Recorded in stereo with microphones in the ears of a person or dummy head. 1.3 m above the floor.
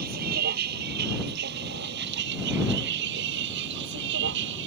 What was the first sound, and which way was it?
A vehicle, 55° right (ahead or behind).